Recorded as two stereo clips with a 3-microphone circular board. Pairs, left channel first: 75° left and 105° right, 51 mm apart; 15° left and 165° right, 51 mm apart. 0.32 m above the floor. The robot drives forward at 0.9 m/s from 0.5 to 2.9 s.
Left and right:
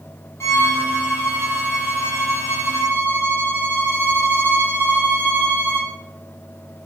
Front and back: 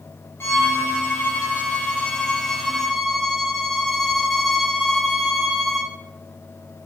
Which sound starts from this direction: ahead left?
A violin, at 0.4 s.